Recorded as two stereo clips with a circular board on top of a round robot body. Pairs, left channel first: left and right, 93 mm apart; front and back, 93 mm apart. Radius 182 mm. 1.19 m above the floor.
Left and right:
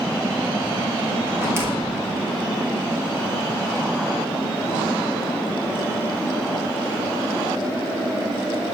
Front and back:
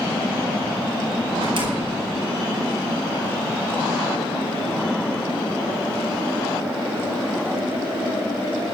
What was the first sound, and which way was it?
A door slam, 155° right.